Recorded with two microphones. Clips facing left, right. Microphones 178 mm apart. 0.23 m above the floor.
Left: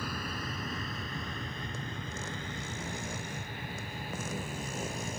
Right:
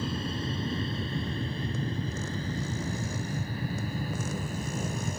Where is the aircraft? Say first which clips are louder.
Right 6 dB; 25° right (ahead or behind); by 5.2 s 45° right (ahead or behind).